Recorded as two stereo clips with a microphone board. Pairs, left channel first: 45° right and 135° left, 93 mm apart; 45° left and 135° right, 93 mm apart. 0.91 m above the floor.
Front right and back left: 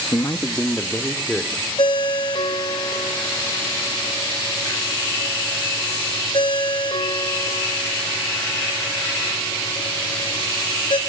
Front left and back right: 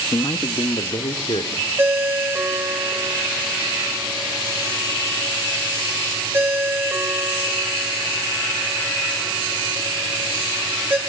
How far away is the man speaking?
About 1.0 m.